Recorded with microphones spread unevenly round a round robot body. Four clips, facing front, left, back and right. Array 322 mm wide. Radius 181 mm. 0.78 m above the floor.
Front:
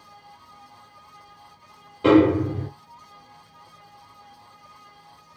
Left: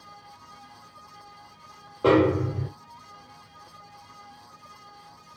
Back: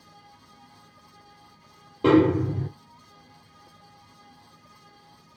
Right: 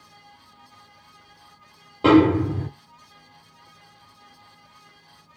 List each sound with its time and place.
2.0 s a snare drum: 145° right, 1.2 m